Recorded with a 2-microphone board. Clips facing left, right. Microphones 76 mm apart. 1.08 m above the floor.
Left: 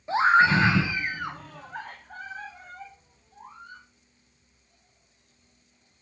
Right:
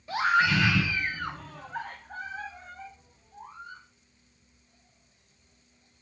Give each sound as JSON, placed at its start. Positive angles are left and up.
{"t": 0.1, "sound": "a scream", "side_deg": 25, "distance_m": 1.1}